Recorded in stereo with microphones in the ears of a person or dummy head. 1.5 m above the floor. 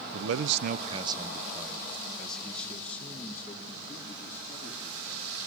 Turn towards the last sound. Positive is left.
turn(degrees=10)  # may be behind; listen again after turning